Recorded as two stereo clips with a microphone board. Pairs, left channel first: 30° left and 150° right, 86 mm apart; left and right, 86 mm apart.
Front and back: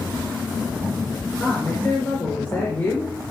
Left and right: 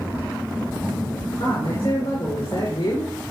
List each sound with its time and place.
1.4 s a woman speaking: 100° left, 4 m